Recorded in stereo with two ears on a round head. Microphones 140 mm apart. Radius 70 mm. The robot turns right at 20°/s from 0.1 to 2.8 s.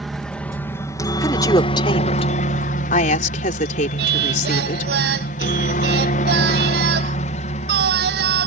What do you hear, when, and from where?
0.0 s a helicopter: centre (ahead or behind); by 8.5 s 45° left (ahead or behind)
1.2 s a woman speaking: 20° left (ahead or behind); by 4.9 s 50° left (ahead or behind)
4.0 s singing: 70° right (ahead or behind)